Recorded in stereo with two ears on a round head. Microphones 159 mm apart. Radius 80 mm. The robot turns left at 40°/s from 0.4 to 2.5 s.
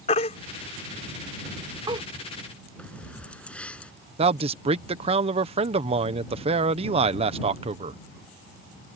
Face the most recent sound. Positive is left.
turn(degrees=-35)  # may be behind; listen again after turning